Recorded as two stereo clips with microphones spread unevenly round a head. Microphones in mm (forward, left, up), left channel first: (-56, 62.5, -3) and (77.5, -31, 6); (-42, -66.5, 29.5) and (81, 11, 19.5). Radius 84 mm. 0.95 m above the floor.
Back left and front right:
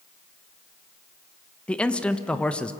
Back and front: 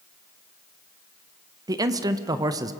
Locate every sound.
1.7 s a man speaking: 70° left, 0.9 m